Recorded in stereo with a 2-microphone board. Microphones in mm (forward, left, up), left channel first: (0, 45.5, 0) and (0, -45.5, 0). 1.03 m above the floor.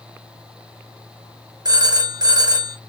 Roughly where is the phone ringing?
Right.